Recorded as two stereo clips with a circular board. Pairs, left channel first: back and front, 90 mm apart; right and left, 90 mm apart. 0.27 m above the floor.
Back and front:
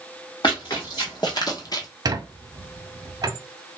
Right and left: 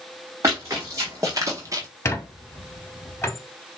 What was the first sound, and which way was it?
Running footsteps, 145° left.